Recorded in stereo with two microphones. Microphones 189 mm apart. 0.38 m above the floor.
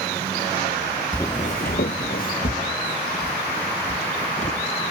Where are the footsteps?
10° left (ahead or behind); by 4.9 s 40° left (ahead or behind).